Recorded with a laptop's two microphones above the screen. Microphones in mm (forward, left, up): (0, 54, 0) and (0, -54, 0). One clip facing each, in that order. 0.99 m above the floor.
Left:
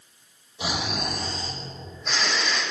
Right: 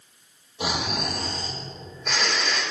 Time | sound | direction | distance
0.6 | snoring | 55° right (ahead or behind) | 3 m